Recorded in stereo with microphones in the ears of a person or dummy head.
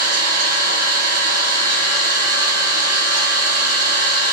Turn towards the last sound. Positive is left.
turn(degrees=-45)  # may be behind; listen again after turning